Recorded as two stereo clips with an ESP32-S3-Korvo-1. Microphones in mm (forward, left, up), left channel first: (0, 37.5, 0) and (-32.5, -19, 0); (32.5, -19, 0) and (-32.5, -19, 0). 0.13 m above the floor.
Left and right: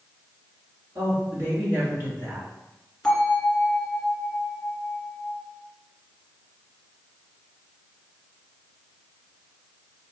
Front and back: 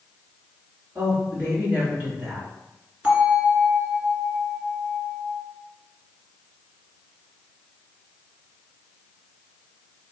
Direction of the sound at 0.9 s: 135° right.